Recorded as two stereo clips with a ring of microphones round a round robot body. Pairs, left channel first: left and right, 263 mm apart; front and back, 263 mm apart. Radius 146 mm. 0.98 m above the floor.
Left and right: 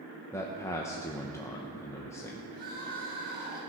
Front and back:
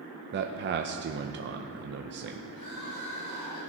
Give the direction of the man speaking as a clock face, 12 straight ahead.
7 o'clock.